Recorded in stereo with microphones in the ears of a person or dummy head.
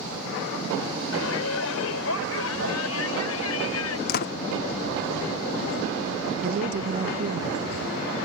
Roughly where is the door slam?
Left.